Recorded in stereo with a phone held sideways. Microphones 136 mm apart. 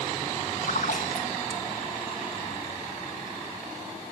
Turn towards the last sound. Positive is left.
turn(degrees=70)  # may be behind; listen again after turning